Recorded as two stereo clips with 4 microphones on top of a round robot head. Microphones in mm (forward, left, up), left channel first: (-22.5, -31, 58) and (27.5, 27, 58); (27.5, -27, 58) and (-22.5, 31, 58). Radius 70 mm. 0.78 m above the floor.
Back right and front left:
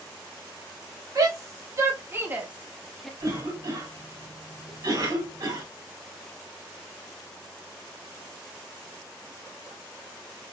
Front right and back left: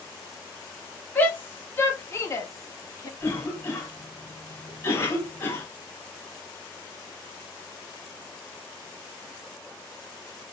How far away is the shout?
About 2.5 m.